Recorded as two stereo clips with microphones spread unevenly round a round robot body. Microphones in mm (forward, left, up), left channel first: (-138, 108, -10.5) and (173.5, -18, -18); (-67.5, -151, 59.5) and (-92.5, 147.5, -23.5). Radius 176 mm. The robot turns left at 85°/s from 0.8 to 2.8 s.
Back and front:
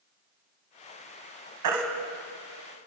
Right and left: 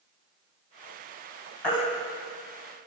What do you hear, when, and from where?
1.6 s a baby crying: 5° left, 2.5 m; by 1.8 s 10° right, 2.5 m